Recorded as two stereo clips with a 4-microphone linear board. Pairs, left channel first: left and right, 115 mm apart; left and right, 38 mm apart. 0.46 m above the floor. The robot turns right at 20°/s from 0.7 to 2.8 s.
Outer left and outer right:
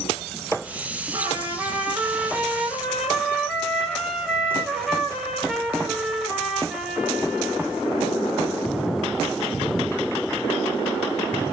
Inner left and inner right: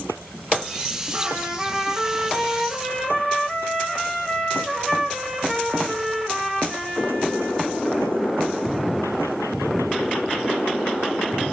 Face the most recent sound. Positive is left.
turn(degrees=0)